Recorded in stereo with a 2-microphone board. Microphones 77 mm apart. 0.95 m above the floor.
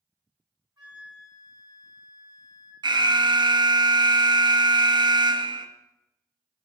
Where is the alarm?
80° right, 0.5 m.